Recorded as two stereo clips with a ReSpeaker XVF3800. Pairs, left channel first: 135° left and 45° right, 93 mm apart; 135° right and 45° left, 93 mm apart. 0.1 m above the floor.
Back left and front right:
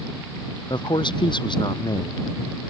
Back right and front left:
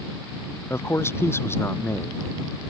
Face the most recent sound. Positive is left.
turn(degrees=165)